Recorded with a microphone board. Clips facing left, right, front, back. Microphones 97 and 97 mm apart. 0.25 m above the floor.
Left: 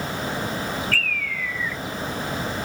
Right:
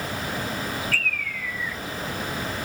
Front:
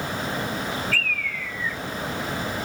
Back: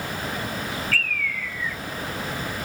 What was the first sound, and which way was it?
A bird, 80° left.